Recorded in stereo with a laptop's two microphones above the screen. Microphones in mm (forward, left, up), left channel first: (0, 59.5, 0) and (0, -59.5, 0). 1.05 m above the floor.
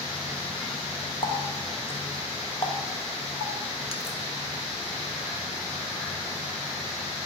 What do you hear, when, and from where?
1.2 s a running tap: 50° left (ahead or behind), 0.7 m